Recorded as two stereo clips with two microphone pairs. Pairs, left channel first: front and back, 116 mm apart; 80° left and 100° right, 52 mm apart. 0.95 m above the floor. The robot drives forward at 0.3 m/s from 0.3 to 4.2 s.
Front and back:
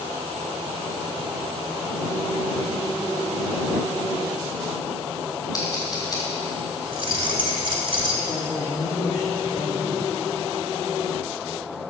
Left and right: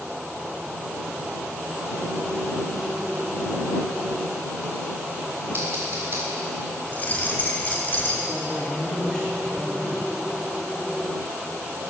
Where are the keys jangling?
140° left, 1.7 m.